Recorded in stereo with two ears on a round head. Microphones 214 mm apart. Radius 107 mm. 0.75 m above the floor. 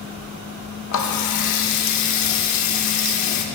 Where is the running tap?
85° left, 1.2 m.